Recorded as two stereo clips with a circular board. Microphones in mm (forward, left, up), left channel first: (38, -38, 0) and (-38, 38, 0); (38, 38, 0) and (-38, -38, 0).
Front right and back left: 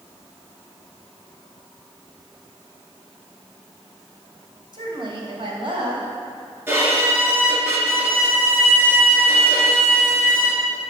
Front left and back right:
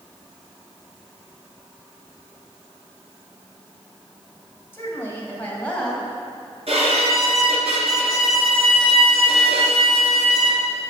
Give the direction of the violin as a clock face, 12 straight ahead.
5 o'clock.